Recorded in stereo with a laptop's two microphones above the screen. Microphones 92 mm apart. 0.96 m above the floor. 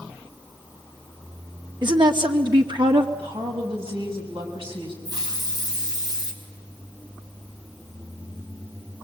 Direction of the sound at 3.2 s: 85° right.